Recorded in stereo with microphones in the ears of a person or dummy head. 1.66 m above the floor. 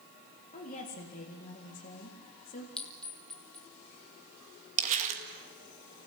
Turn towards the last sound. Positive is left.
turn(degrees=-45)  # may be behind; listen again after turning